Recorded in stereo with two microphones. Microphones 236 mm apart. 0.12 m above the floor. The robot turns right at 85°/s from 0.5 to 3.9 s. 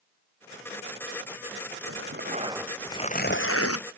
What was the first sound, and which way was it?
Tearing paper, 75° right.